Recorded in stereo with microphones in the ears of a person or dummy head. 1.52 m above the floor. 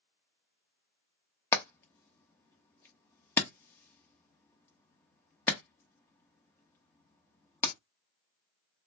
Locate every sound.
1.5 s hammering: 15° left (ahead or behind), 0.8 m